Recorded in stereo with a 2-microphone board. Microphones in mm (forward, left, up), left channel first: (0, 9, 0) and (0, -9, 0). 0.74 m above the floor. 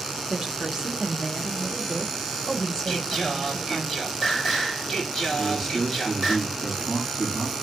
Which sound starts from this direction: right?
A woman speaking, at 0.3 s.